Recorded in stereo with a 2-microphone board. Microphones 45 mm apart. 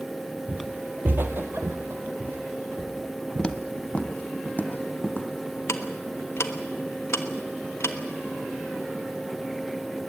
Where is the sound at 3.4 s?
20° left (ahead or behind), 1.3 m; by 5.6 s 40° left (ahead or behind), 3.5 m.